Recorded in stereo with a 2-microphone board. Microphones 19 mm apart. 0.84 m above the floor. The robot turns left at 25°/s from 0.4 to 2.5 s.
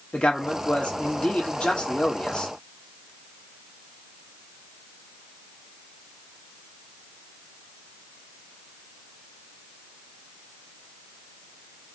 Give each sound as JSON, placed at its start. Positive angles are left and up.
{"t": 0.1, "sound": "a man speaking", "azimuth_deg": 105, "distance_m": 1.4}